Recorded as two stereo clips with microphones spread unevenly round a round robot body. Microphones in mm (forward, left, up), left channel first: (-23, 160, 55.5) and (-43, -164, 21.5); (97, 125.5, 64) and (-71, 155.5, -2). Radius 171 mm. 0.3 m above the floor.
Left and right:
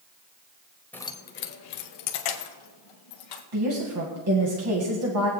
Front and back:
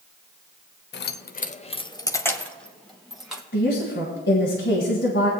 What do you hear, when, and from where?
0.9 s keys jangling: 5° right, 0.7 m; by 3.4 s 90° left, 1.8 m
3.5 s a woman speaking: 65° right, 1.9 m